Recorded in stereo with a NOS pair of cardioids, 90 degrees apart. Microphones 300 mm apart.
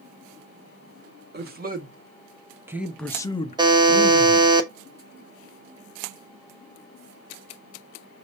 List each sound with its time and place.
1.3 s a man speaking: 30° right, 1.8 m; by 4.5 s 55° left, 1.2 m
3.6 s a buzzer: 15° right, 1.1 m